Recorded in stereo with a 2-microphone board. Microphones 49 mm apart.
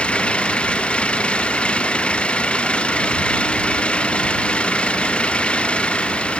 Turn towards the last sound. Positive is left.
turn(degrees=20)  # may be behind; listen again after turning